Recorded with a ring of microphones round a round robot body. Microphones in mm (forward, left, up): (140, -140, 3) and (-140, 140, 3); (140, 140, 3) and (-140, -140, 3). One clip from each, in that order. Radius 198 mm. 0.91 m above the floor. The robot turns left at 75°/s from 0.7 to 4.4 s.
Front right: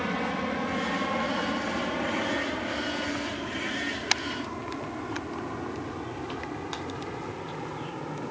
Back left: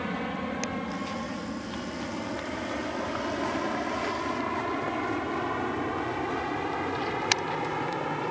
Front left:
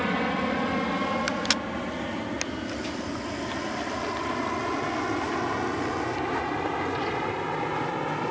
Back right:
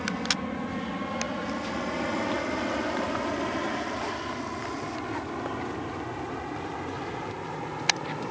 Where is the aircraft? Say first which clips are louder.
Front right 3 dB, front left 3 dB; 25° left; by 8.3 s 100° left.